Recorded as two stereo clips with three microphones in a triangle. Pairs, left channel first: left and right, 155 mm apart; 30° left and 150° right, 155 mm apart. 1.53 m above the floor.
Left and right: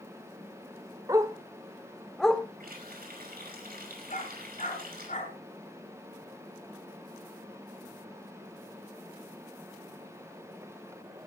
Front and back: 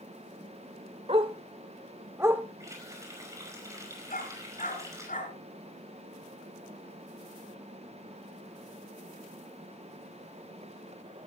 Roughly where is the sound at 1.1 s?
Behind right.